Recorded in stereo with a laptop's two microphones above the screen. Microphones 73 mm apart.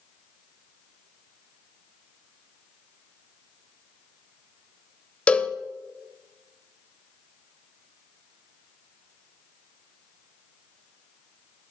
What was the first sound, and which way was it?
A cowbell, 15° left (ahead or behind).